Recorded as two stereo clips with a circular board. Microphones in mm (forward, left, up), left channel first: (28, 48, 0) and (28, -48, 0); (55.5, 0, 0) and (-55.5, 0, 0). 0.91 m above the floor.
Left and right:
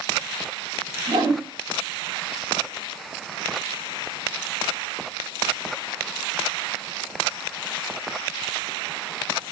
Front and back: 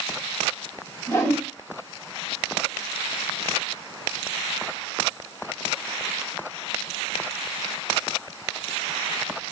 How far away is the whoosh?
About 1.5 m.